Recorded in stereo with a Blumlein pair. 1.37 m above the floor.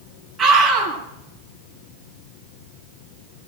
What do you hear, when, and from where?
0.4 s a scream: 20° right, 8.5 m